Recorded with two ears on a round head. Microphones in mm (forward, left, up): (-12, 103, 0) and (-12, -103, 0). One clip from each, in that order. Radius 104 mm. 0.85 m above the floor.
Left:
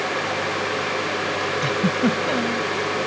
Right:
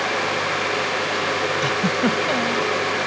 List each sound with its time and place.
1.6 s a giggle: 25° right (ahead or behind)